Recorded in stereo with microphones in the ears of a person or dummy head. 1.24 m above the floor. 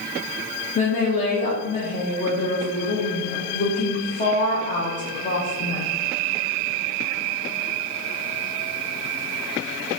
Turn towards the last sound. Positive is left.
turn(degrees=50)  # may be behind; listen again after turning